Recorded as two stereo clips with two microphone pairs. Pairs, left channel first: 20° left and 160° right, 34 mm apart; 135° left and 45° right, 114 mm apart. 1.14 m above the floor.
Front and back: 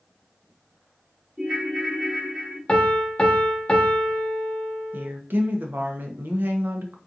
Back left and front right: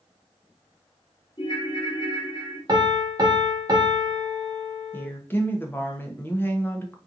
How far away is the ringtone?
About 0.9 m.